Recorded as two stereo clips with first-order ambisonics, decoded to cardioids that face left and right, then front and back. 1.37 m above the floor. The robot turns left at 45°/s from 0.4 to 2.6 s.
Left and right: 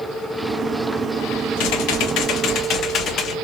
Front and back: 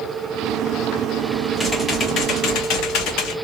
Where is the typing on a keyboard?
80° left, 0.7 m; by 3.4 s 35° left, 0.7 m.